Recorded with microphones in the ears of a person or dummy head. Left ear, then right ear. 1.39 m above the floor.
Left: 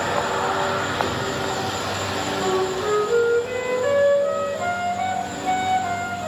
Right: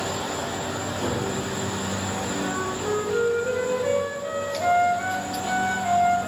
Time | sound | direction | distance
1.0 | a gunshot | 50° left (ahead or behind) | 4.5 m
2.4 | a flute | 55° left (ahead or behind) | 2.5 m